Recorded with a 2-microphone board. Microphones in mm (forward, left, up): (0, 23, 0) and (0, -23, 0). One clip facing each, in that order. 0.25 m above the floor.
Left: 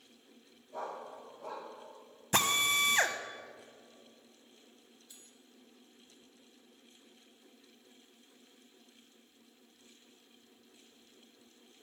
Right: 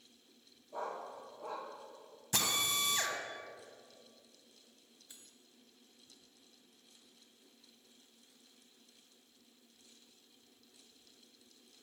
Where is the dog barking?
15° right (ahead or behind), 6.5 m.